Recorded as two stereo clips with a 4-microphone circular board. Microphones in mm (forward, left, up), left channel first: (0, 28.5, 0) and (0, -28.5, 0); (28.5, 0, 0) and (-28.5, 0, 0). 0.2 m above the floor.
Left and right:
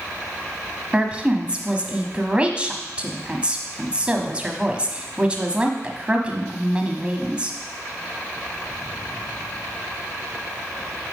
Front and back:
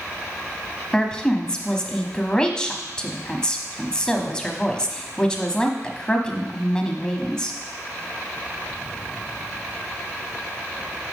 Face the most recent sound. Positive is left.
turn(degrees=-55)